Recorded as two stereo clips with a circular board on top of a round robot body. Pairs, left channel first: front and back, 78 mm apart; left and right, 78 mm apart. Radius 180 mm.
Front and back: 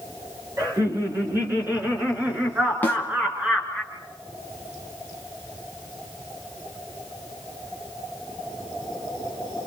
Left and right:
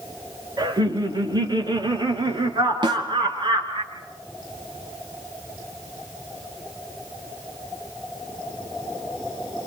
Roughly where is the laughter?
Behind right.